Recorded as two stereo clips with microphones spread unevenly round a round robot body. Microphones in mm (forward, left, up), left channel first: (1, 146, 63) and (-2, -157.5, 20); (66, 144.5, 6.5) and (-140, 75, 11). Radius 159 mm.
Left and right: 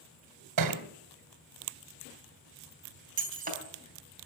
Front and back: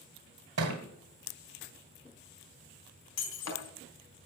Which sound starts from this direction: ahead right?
Breaking glass, at 3.2 s.